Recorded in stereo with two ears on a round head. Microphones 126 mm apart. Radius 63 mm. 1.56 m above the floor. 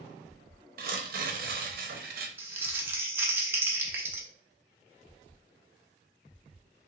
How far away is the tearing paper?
About 0.8 m.